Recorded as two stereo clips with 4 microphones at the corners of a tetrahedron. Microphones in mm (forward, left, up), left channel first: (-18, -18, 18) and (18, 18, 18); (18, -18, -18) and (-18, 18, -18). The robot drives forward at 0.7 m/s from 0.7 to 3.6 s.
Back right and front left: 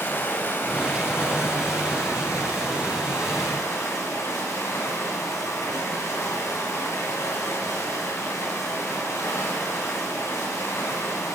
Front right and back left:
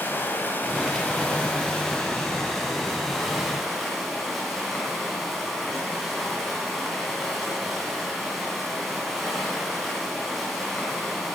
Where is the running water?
95° right, 2 m; by 11.3 s 135° right, 3 m.